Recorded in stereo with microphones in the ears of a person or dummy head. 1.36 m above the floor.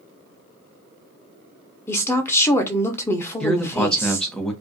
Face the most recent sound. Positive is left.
turn(degrees=5)  # may be behind; listen again after turning